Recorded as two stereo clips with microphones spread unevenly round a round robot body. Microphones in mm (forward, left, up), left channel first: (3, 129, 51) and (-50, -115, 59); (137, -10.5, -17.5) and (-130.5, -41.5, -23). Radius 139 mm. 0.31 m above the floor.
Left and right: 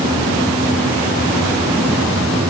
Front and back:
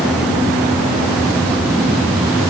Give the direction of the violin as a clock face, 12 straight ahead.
No violin in this recording.